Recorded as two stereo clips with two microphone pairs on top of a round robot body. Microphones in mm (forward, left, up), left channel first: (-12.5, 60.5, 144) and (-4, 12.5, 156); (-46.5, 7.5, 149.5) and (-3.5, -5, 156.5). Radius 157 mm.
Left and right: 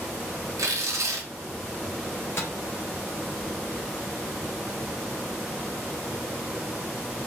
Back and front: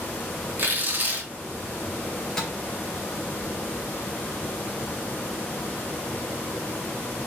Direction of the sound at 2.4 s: 95° left.